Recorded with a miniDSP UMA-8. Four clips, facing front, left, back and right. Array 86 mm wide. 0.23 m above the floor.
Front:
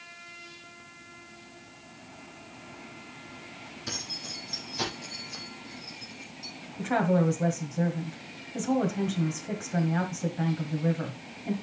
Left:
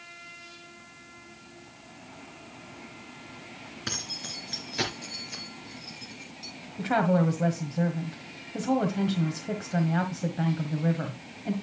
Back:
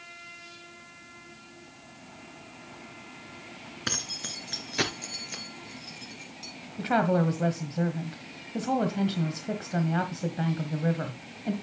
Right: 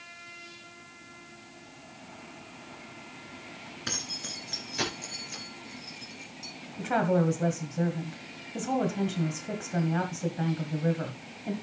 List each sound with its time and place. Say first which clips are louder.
3.9 s keys jangling: left 1 dB, back 5 dB; straight behind, 1.6 m; by 6.5 s 165° left, 3.5 m
6.8 s a woman speaking: left 1 dB, back 1 dB; 160° left, 1.4 m